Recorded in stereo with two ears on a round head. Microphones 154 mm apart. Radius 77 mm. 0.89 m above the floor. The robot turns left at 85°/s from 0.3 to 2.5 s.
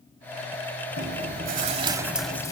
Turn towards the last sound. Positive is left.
turn(degrees=155)